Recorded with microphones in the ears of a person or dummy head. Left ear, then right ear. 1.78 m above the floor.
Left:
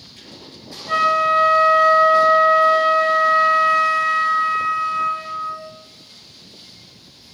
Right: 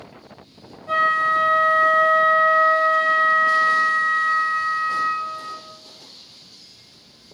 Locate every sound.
0.9 s a flute: 10° right (ahead or behind), 1.1 m